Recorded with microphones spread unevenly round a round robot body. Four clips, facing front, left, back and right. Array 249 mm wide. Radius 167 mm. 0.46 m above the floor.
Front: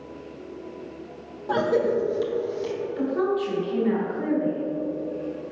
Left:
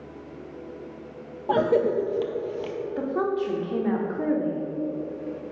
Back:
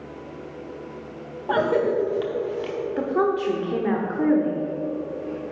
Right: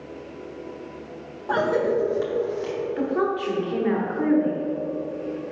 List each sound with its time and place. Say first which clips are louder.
1.5 s a cough: even, back 1 dB; 105° left, 0.7 m
3.0 s a woman speaking: right 1 dB, back 2 dB; straight behind, 1.4 m